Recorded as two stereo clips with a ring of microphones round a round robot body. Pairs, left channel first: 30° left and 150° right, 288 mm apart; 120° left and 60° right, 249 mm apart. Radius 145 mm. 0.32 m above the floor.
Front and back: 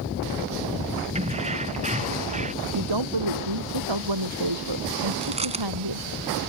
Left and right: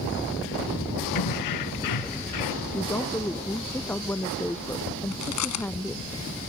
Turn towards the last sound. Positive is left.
turn(degrees=140)